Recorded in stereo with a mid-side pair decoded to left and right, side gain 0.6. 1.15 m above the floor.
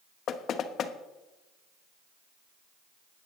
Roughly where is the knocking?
Ahead left.